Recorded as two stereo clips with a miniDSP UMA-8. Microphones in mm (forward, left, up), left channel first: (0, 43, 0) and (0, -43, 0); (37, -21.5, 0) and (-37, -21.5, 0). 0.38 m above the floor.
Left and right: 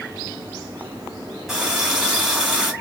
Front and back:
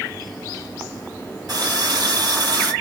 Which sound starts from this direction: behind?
A running tap, at 1.5 s.